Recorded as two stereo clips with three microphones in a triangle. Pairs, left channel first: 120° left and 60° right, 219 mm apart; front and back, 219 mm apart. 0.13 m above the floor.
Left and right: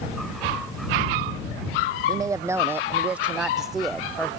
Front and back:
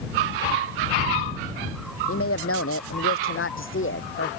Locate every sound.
2.1 s a woman speaking: 15° left; by 4.3 s 35° left